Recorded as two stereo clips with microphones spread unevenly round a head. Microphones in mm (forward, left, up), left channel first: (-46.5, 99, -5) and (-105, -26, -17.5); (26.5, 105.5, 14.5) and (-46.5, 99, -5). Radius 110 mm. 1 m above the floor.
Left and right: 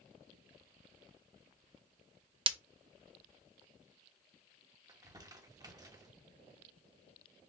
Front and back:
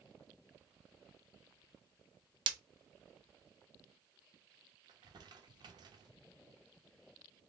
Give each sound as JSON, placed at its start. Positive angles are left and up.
{"t": 2.5, "sound": "breaking glass", "azimuth_deg": -170, "distance_m": 0.6}
{"t": 4.9, "sound": "crumpling", "azimuth_deg": -175, "distance_m": 1.1}